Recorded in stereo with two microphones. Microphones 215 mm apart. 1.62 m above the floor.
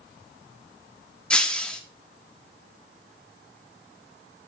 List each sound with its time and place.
1.3 s breaking glass: 5° left (ahead or behind), 1.3 m